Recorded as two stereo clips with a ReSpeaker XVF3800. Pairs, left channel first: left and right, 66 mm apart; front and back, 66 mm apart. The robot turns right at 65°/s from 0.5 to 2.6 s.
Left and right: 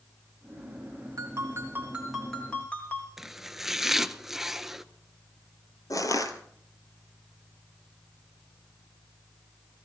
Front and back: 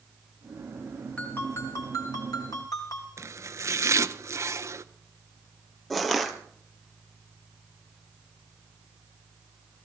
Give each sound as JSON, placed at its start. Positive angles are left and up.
{"t": 1.2, "sound": "a ringtone", "azimuth_deg": -70, "distance_m": 3.5}
{"t": 3.2, "sound": "chopping", "azimuth_deg": -175, "distance_m": 0.6}
{"t": 5.9, "sound": "crushing", "azimuth_deg": 90, "distance_m": 1.5}